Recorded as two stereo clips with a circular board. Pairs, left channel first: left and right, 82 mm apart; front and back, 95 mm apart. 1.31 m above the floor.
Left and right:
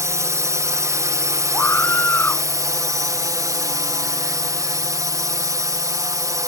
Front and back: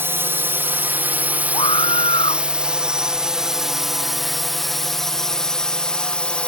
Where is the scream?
25° left.